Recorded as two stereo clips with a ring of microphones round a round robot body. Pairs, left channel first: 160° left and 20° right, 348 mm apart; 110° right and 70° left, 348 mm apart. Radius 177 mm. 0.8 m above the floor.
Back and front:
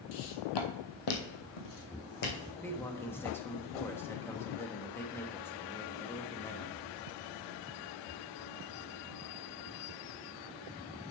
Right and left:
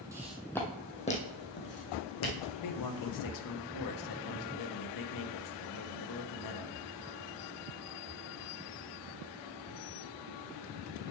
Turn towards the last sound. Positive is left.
turn(degrees=-120)